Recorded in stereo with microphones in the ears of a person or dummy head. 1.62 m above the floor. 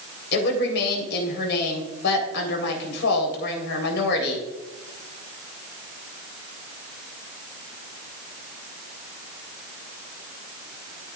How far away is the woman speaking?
About 3.5 m.